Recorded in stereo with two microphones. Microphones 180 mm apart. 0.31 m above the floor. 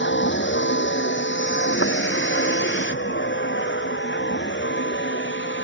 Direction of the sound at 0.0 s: 85° left.